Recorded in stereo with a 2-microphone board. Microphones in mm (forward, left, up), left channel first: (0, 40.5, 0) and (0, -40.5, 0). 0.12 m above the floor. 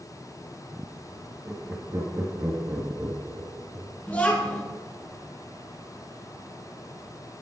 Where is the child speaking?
20° left (ahead or behind), 3 m.